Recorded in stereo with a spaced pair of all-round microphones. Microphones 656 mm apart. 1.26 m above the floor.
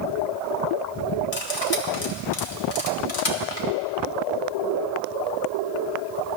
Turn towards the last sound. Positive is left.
turn(degrees=55)  # may be behind; listen again after turning